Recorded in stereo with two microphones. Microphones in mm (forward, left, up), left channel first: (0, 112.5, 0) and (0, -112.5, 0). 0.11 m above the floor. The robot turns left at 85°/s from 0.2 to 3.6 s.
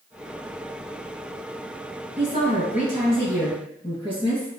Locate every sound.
2.2 s a woman speaking: 160° left, 1.6 m; by 4.5 s 35° left, 1.6 m